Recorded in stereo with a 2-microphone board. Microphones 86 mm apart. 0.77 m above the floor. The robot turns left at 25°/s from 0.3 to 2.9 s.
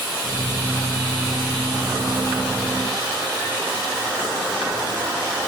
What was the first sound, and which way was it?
Only background noise.